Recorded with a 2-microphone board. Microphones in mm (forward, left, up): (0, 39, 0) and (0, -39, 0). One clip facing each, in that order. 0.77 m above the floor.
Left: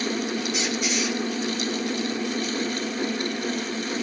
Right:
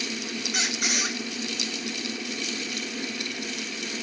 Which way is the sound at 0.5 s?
75° right (ahead or behind).